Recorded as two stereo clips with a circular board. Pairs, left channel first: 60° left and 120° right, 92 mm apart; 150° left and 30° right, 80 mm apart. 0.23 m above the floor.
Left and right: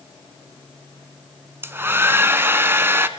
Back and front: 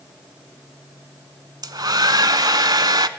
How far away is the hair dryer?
About 0.6 m.